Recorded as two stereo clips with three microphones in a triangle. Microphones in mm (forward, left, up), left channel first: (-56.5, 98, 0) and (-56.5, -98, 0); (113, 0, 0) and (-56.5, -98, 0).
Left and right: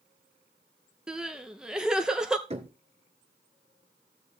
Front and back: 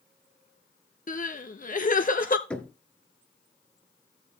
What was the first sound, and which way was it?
Crying, 5° right.